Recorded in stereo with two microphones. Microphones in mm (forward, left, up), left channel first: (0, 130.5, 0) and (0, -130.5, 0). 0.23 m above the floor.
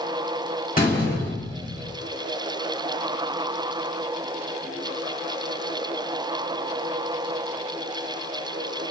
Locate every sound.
0.8 s a door slam: 35° left (ahead or behind), 1.2 m